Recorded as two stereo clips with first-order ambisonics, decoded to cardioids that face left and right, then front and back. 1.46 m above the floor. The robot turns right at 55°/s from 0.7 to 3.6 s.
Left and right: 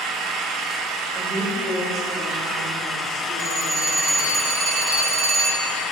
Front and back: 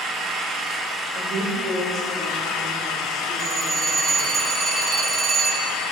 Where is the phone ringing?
120° right, 2 m; by 5.7 s 110° right, 2 m.